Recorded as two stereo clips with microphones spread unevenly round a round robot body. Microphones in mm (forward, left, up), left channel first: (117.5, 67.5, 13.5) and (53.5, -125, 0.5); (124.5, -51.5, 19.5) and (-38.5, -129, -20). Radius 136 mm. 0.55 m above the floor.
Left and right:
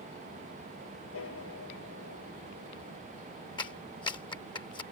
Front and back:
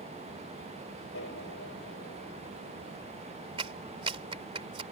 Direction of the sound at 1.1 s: 65° left.